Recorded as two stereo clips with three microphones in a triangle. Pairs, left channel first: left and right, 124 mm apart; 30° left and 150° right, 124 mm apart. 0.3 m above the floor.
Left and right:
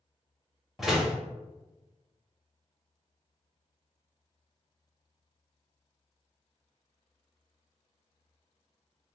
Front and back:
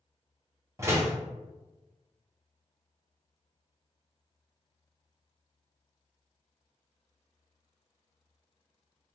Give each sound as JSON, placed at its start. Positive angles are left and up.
{"t": 0.8, "sound": "a door slam", "azimuth_deg": -175, "distance_m": 0.6}